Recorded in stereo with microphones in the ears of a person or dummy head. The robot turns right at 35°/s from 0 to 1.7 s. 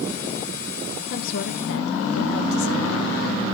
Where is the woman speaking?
45° left (ahead or behind), 0.9 m; by 3.3 s 60° left (ahead or behind), 0.9 m.